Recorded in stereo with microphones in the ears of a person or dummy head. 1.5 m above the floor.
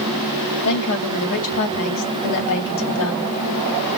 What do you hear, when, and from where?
0.7 s a woman speaking: 70° left (ahead or behind), 2.5 m